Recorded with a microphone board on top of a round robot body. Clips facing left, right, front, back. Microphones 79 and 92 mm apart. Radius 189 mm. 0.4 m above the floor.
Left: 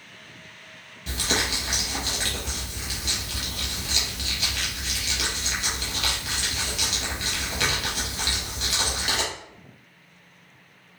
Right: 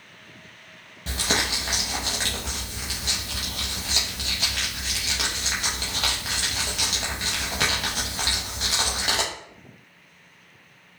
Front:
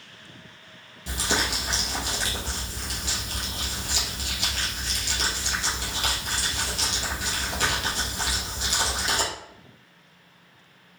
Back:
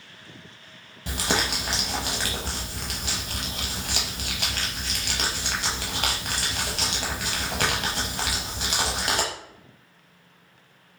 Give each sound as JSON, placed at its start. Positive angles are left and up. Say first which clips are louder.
{"t": 1.1, "sound": "crumpling", "louder": "right 1 dB, back 1 dB", "azimuth_deg": -145, "distance_m": 0.5}